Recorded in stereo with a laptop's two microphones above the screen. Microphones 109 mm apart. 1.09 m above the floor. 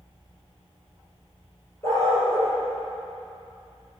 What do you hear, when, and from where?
1.8 s a dog barking: 25° left (ahead or behind), 9.5 m